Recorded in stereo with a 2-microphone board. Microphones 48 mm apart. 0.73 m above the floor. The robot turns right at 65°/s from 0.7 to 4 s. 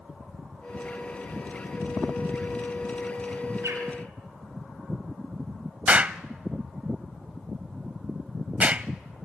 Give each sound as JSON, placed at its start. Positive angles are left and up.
{"t": 3.6, "sound": "a bird", "side_deg": -85, "distance_m": 6.0}
{"t": 5.9, "sound": "an explosion", "side_deg": -35, "distance_m": 0.6}